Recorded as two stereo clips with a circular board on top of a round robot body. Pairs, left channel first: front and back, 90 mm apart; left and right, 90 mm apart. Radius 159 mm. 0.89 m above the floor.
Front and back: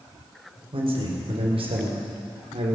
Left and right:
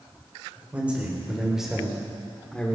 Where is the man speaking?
165° right, 3.5 m; by 2.8 s 165° left, 3 m.